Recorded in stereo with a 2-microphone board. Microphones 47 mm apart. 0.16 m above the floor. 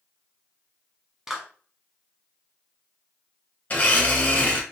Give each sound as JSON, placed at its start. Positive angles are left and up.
{"t": 1.3, "sound": "a clap", "side_deg": -15, "distance_m": 0.9}
{"t": 3.7, "sound": "a blender", "side_deg": 35, "distance_m": 1.0}